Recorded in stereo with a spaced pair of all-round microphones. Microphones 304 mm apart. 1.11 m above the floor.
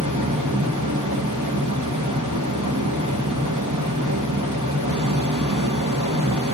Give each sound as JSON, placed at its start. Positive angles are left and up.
{"t": 0.0, "sound": "a fan", "side_deg": -80, "distance_m": 1.7}